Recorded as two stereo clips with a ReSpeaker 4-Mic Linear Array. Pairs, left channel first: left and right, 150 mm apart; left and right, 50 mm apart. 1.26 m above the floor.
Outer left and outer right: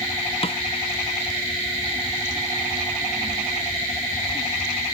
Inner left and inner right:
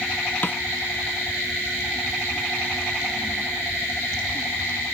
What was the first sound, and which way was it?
A snare drum, 40° left (ahead or behind).